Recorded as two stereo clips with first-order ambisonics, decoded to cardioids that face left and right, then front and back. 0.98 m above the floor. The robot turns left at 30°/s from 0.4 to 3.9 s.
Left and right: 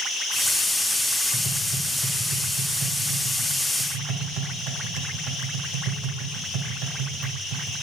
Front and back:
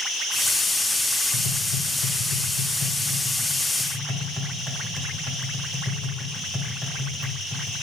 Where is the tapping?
15° right, 1.6 m; by 7.7 s 90° right, 1.6 m.